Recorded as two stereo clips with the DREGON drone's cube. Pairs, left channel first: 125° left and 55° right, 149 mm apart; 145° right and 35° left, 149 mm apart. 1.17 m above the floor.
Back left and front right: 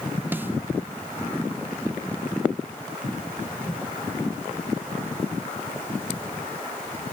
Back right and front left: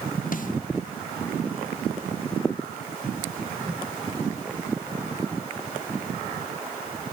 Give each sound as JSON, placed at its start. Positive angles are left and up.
{"t": 0.3, "sound": "a snare drum", "azimuth_deg": -135, "distance_m": 0.9}